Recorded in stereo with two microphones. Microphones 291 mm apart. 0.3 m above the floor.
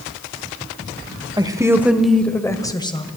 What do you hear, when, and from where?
1.4 s a woman speaking: 15° right (ahead or behind), 1.3 m; by 3.0 s 15° left (ahead or behind), 1.6 m